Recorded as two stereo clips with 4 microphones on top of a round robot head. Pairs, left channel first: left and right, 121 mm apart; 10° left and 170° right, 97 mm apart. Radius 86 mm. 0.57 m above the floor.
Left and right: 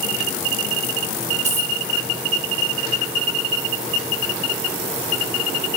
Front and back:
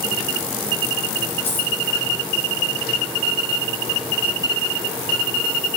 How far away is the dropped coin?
About 1.7 m.